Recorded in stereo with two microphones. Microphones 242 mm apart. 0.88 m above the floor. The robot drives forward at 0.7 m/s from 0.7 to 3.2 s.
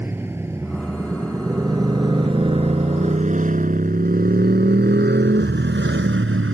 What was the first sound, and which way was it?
A motorcycle, 10° right (ahead or behind).